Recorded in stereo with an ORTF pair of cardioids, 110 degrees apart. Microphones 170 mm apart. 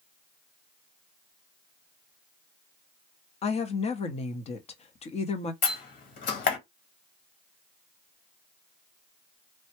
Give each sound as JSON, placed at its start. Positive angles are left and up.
{"t": 3.4, "sound": "a woman speaking", "azimuth_deg": 40, "distance_m": 0.9}
{"t": 5.6, "sound": "a door slam", "azimuth_deg": 65, "distance_m": 1.6}